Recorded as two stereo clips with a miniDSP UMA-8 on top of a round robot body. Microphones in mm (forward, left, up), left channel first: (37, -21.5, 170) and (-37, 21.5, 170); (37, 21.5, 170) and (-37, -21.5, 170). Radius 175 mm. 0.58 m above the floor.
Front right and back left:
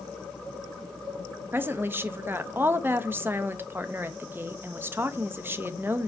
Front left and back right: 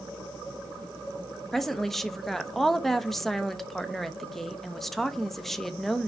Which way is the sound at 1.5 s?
115° left.